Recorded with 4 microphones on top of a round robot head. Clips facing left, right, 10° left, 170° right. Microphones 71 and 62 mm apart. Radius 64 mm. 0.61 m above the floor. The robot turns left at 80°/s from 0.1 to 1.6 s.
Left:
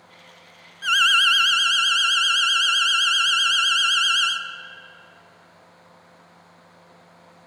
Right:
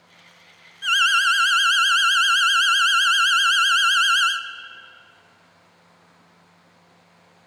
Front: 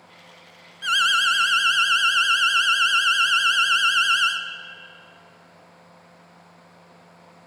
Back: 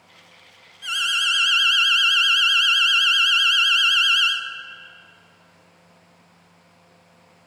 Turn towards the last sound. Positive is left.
turn(degrees=-50)